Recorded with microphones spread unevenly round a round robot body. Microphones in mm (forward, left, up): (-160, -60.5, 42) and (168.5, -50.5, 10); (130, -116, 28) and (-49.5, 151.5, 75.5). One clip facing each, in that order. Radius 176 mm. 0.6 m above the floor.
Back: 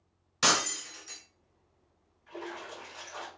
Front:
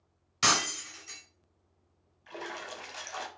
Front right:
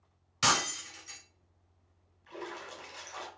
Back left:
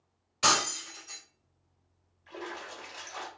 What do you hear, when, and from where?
0.4 s breaking glass: 95° right, 1.4 m
2.3 s a splash: 30° left, 0.6 m